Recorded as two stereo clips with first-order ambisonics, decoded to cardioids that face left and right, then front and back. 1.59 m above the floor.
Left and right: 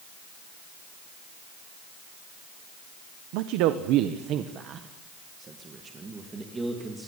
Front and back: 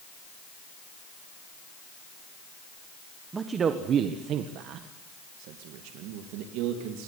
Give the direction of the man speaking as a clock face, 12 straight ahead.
4 o'clock.